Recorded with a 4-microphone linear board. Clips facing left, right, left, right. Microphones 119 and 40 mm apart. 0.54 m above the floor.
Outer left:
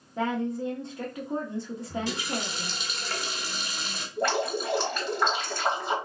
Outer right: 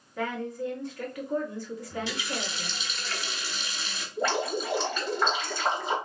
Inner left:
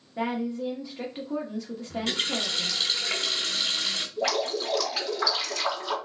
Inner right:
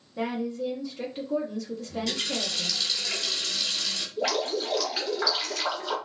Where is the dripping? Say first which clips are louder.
Outer left 1 dB, inner right 1 dB; centre (ahead or behind), 2.5 m.